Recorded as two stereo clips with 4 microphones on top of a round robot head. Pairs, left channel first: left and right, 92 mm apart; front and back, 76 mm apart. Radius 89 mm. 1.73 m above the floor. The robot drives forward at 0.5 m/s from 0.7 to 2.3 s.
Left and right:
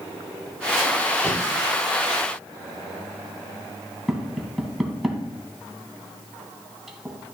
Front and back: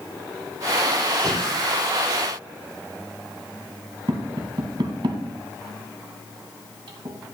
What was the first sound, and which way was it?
Breathing, 75° left.